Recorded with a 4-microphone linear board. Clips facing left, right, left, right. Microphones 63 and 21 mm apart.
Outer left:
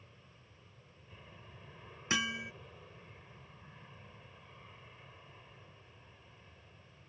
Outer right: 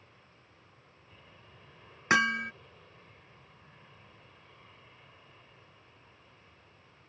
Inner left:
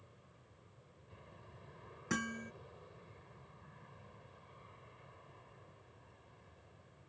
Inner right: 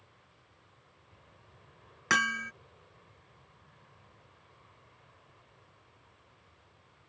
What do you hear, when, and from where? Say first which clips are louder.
0.0 s an aircraft: outer right 1 dB, inner right 1 dB; 10° left (ahead or behind)
2.1 s hammering: outer right 10 dB, inner right 12 dB; 60° right (ahead or behind)